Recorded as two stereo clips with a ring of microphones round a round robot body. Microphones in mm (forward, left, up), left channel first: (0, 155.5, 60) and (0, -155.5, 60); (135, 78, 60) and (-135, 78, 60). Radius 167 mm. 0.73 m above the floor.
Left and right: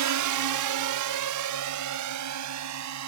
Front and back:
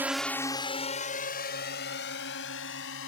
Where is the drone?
100° right; by 3.1 s 50° right.